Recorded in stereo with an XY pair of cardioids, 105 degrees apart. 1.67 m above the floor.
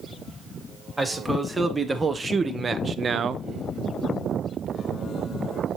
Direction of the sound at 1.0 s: 15° right.